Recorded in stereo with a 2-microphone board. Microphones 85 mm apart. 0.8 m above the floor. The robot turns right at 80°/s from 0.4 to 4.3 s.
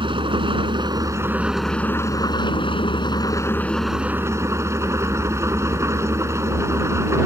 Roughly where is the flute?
I don't hear a flute.